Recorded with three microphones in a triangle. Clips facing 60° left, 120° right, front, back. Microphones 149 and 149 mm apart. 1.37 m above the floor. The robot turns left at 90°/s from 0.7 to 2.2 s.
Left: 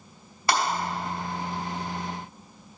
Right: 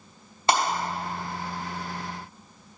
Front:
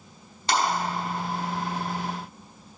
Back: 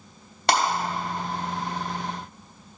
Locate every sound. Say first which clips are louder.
0.5 s breaking glass: right 2 dB, back 3 dB; 175° left, 3 m